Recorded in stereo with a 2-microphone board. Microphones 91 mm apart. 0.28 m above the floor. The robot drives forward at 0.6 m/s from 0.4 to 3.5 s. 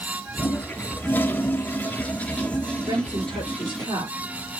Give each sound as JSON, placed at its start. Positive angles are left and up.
{"t": 0.4, "sound": "a toilet flushing", "side_deg": 15, "distance_m": 0.8}
{"t": 2.9, "sound": "a woman speaking", "side_deg": -55, "distance_m": 4.5}